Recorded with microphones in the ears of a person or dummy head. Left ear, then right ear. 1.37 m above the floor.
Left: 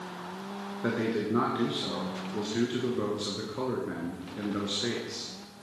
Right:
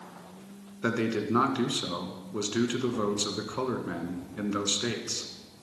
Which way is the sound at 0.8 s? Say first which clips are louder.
Right 1 dB; 70° right (ahead or behind).